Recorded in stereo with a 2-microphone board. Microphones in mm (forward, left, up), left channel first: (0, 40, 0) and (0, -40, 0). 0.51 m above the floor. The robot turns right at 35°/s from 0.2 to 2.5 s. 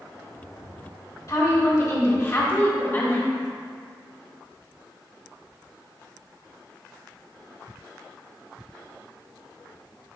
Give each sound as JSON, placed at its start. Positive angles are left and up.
{"t": 1.3, "sound": "a woman speaking", "azimuth_deg": 90, "distance_m": 1.5}